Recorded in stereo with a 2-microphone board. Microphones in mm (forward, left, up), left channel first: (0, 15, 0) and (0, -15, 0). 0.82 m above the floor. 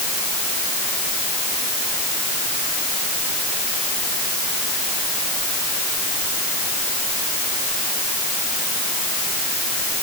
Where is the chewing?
I don't hear chewing.